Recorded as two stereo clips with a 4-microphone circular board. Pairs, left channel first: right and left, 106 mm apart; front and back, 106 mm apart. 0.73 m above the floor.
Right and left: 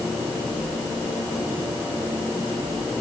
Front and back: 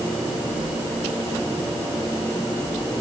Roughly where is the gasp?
I don't hear a gasp.